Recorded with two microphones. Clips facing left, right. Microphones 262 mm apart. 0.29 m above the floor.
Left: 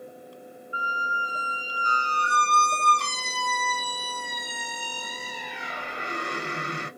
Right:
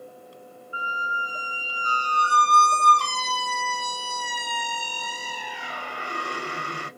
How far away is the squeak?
About 0.5 m.